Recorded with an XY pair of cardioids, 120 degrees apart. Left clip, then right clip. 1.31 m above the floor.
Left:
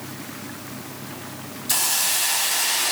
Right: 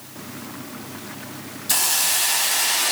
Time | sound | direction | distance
1.7 | a hiss | 10° right | 0.8 m